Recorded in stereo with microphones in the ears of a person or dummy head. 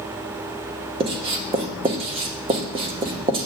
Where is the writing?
30° right (ahead or behind), 0.6 m.